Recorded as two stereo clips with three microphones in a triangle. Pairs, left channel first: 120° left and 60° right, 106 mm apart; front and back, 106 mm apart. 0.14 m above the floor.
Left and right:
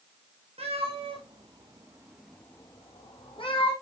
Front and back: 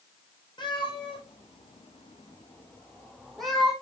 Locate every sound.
0.6 s a cat meowing: 45° right, 2.5 m; by 3.7 s 95° left, 2.5 m